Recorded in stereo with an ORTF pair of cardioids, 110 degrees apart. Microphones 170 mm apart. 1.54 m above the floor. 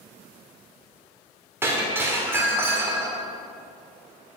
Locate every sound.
1.6 s breaking glass: 15° right, 3 m